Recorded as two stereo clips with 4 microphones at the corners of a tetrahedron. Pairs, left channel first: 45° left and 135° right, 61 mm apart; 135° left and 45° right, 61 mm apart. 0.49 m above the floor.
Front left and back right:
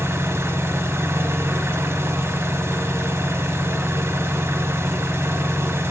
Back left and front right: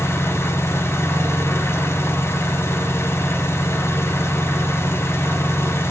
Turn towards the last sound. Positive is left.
turn(degrees=180)